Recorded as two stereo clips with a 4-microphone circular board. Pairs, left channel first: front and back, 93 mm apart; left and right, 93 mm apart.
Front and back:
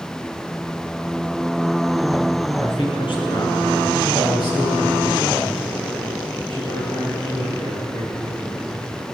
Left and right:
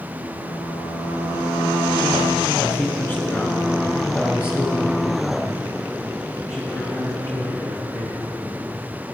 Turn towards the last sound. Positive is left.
turn(degrees=35)